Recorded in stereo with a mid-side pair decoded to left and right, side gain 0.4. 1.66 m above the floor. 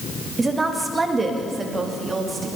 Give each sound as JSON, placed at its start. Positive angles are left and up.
{"t": 0.4, "sound": "a woman speaking", "azimuth_deg": -30, "distance_m": 2.0}